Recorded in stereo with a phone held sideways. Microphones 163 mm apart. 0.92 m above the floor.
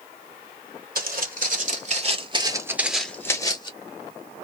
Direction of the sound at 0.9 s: 65° right (ahead or behind).